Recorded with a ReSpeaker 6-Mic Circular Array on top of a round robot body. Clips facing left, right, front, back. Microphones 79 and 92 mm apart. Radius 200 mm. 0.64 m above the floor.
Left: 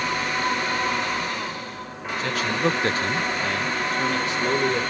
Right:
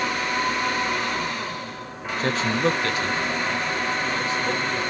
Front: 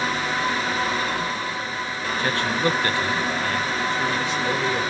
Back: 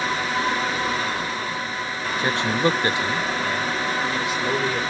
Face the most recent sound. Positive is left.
turn(degrees=95)